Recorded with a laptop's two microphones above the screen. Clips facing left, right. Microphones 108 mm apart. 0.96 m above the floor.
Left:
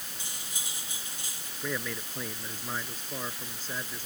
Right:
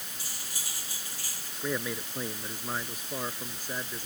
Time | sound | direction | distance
0.2 | cutlery clinking | 20° left (ahead or behind) | ?
1.6 | a man speaking | 15° right (ahead or behind) | ?